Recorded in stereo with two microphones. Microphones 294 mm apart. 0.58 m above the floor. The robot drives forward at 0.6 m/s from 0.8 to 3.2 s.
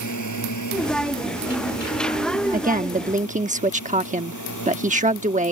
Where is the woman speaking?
30° right (ahead or behind); by 5.5 s 25° right (ahead or behind).